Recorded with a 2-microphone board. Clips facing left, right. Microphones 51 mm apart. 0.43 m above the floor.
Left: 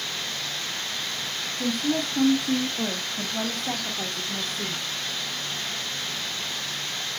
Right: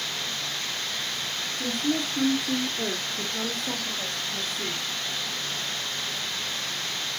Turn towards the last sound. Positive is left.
turn(degrees=70)  # may be behind; listen again after turning